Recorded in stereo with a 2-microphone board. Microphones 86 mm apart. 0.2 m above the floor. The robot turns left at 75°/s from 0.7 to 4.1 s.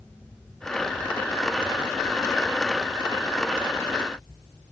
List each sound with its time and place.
Only background noise.